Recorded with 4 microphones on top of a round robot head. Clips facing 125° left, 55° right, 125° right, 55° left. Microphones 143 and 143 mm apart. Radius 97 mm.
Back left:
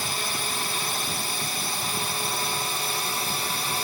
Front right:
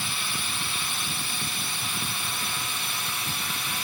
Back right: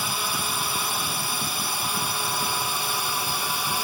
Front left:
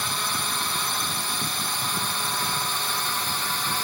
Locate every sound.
0.0 s a drone: 155° left; by 3.8 s 160° left